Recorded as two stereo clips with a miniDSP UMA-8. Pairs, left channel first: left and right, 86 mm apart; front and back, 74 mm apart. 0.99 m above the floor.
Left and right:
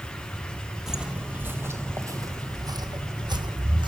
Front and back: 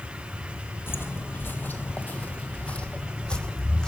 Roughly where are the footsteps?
Ahead.